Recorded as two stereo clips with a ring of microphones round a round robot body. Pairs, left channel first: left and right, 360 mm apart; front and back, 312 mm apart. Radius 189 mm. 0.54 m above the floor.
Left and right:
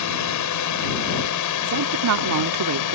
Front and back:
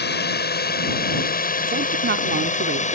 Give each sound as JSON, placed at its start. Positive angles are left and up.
{"t": 0.0, "sound": "a drone", "azimuth_deg": 55}
{"t": 1.6, "sound": "a woman speaking", "azimuth_deg": -125}